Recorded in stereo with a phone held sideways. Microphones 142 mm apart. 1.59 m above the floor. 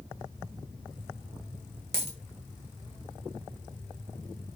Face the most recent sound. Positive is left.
turn(degrees=-45)  # may be behind; listen again after turning